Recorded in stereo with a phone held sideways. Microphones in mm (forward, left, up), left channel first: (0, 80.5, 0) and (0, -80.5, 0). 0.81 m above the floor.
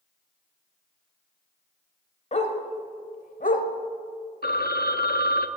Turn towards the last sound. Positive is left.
turn(degrees=80)